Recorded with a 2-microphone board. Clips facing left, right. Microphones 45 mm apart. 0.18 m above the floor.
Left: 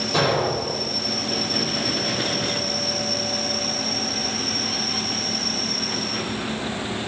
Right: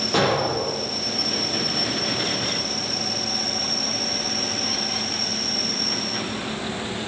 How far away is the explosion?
About 9 m.